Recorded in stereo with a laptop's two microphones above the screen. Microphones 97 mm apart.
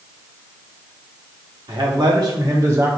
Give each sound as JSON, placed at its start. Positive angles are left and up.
{"t": 1.7, "sound": "a man speaking", "side_deg": -55, "distance_m": 1.4}